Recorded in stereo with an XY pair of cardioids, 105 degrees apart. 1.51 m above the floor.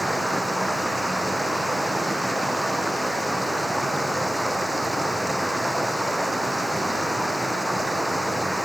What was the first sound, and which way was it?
Running water, 5° right.